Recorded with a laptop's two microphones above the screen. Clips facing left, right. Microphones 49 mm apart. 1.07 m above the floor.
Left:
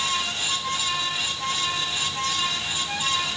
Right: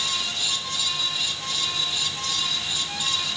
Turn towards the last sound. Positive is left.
turn(degrees=30)  # may be behind; listen again after turning